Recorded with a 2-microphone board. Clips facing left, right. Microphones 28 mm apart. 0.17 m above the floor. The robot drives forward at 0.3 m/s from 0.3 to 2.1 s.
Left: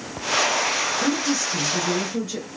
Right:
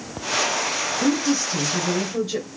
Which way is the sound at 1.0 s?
30° right (ahead or behind).